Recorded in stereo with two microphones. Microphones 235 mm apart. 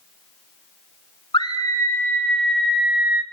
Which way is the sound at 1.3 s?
20° left (ahead or behind).